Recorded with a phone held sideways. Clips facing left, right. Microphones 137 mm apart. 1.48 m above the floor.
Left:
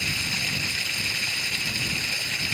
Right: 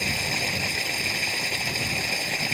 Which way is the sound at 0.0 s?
50° right (ahead or behind).